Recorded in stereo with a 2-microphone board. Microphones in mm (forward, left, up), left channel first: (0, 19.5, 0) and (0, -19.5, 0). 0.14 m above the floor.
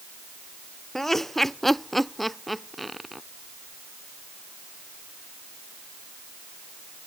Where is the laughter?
5° left (ahead or behind); by 3.2 s 5° right (ahead or behind).